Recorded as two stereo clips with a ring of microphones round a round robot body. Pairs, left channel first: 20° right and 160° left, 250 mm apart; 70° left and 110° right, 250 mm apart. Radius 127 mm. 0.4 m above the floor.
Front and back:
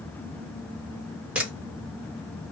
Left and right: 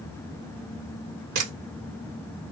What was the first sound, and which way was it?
A camera shutter, 115° right.